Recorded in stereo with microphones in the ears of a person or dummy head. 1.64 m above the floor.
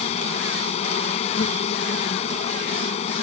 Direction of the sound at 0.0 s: 35° left (ahead or behind).